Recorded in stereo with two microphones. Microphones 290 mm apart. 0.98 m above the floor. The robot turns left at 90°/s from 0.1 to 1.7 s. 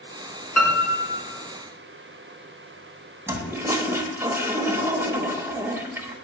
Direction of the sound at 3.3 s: 10° right (ahead or behind).